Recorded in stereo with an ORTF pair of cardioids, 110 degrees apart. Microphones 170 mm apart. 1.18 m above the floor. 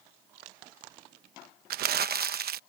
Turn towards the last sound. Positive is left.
turn(degrees=-60)